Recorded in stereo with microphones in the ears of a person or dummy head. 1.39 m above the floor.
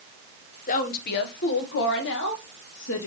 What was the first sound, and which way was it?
A woman speaking, 45° left (ahead or behind).